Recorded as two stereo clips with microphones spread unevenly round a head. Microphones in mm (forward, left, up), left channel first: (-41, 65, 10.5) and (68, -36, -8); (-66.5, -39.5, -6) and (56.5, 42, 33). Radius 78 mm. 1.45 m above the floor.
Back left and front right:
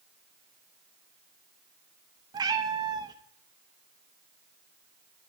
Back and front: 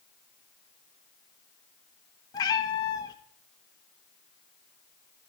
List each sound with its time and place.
2.3 s a cat meowing: 80° right, 0.7 m